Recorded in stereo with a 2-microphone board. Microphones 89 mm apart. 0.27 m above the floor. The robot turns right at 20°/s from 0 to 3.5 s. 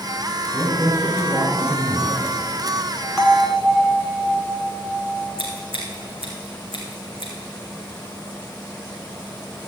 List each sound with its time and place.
0.5 s a woman speaking: 65° right, 2.5 m; by 2.2 s 30° right, 2.5 m
3.2 s a bell: centre (ahead or behind), 1.5 m; by 5.3 s 5° right (ahead or behind), 1.5 m
5.4 s scissors: 80° right, 3.5 m